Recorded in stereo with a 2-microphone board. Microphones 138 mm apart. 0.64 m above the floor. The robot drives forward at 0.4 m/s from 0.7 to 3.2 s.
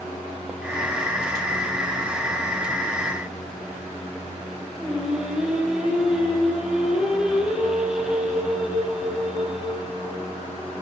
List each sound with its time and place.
4.8 s singing: 5° right (ahead or behind), 7 m